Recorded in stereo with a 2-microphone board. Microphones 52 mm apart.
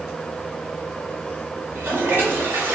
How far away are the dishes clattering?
I don't hear dishes clattering.